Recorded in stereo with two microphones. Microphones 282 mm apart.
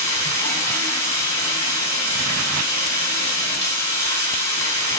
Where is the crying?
No crying in this recording.